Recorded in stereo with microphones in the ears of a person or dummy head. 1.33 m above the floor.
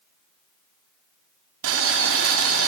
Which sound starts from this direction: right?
Boiling, at 1.6 s.